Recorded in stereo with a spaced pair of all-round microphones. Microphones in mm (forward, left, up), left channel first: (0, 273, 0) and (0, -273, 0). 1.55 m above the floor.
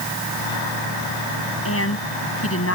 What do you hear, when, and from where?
1.6 s a woman speaking: 25° left (ahead or behind)